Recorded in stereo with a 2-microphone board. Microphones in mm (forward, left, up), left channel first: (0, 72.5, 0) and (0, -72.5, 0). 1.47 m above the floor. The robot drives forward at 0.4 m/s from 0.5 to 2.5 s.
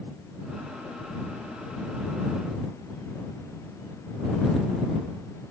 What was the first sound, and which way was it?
Only background noise.